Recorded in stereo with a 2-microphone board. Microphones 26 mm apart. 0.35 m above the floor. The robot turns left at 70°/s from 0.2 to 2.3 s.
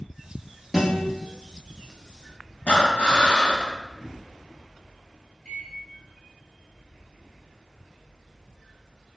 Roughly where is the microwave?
Left.